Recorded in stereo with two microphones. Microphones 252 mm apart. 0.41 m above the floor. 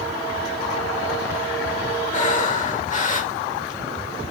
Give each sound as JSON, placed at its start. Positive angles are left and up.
{"t": 2.1, "sound": "breathing", "side_deg": 30, "distance_m": 1.2}